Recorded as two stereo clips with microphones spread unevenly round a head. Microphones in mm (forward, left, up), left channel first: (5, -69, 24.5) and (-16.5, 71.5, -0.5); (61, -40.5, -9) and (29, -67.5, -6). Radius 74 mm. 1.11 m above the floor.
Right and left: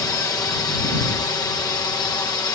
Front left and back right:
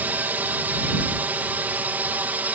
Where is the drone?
145° right; by 2.5 s 140° right.